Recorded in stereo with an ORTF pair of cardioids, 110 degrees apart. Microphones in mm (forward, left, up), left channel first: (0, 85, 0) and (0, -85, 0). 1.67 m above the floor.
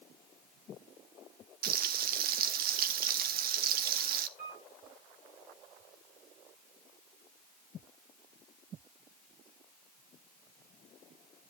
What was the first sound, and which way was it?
Frying, 65° right.